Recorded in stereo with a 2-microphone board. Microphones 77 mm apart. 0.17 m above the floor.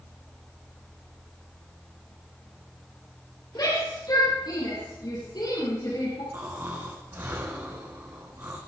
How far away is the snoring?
About 5 m.